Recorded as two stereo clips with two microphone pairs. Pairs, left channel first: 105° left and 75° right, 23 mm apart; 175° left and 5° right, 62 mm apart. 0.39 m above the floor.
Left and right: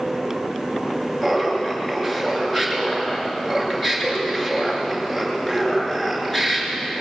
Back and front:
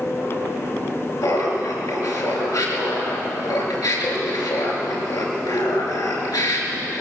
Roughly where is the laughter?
Behind.